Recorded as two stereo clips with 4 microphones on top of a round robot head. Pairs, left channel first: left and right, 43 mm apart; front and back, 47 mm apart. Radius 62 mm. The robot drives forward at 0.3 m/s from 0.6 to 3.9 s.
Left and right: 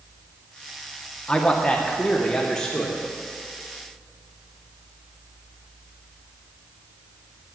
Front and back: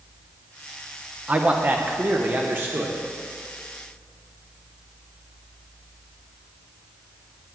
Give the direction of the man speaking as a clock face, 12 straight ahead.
7 o'clock.